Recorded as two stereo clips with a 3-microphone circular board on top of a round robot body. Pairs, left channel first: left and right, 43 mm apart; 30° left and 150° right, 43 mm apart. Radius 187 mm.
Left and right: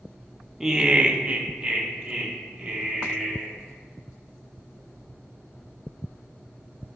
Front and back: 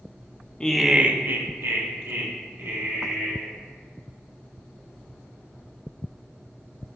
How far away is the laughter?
About 0.5 m.